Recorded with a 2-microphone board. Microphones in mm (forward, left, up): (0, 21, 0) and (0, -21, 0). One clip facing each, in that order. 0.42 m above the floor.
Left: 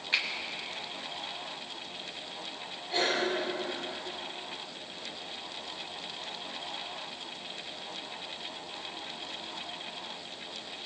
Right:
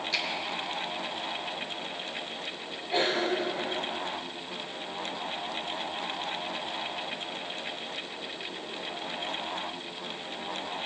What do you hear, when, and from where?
0.1 s a finger snap: 35° left (ahead or behind), 2.5 m
2.9 s a cough: 20° right (ahead or behind), 6 m